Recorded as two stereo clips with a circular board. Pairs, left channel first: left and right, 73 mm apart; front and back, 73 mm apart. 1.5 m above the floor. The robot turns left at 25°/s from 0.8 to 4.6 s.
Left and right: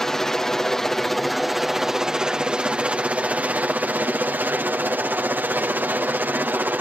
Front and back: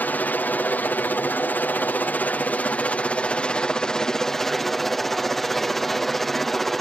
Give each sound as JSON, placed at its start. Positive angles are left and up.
{"t": 0.0, "sound": "a helicopter", "azimuth_deg": 15}